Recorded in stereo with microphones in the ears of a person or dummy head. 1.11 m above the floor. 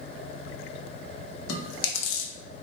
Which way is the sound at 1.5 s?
85° left.